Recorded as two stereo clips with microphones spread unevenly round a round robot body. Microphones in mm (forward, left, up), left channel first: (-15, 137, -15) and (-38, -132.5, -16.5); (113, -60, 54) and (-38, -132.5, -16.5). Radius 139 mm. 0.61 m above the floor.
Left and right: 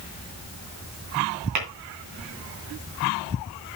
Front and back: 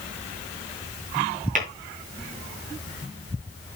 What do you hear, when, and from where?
1.6 s tapping: 115° right, 3.5 m